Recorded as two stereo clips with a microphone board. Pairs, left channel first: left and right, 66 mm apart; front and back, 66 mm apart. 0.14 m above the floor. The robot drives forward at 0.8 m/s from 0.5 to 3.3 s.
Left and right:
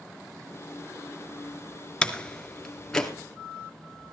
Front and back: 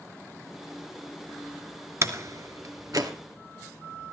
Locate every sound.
2.0 s a door slam: 160° left, 1.5 m; by 3.1 s 170° left, 2 m